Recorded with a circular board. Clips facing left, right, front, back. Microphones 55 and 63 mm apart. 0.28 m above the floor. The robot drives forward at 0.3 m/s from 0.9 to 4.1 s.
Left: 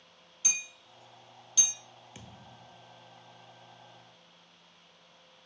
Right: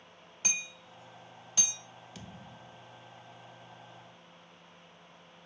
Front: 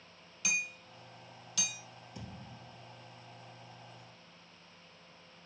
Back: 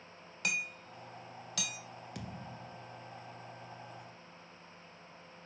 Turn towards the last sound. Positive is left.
turn(degrees=165)